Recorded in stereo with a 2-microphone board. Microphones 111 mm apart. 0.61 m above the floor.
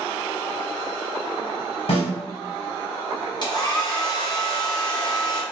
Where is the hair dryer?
40° left (ahead or behind), 0.8 m.